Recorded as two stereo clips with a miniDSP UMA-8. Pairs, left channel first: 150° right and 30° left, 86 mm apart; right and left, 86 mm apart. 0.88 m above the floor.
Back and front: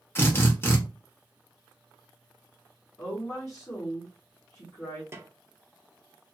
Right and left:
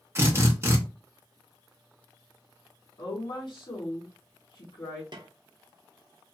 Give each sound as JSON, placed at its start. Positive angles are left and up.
{"t": 0.1, "sound": "a drill", "azimuth_deg": 150, "distance_m": 0.9}
{"t": 3.0, "sound": "a woman speaking", "azimuth_deg": -95, "distance_m": 1.6}
{"t": 5.1, "sound": "a snare drum", "azimuth_deg": 85, "distance_m": 0.6}